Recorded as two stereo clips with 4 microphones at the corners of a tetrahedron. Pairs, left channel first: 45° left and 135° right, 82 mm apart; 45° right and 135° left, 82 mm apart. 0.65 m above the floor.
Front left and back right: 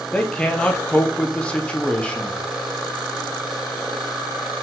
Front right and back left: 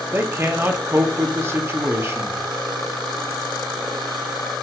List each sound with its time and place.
0.1 s a man speaking: 110° left, 1.0 m